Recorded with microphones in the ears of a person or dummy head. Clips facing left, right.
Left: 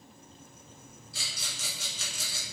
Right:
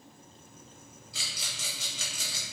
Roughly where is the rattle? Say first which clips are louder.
Even; right.